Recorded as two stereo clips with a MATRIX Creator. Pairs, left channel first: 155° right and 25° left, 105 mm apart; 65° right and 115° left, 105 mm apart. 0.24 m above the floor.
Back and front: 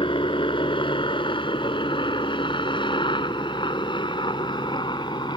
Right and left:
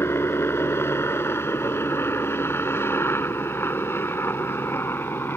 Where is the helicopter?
130° right.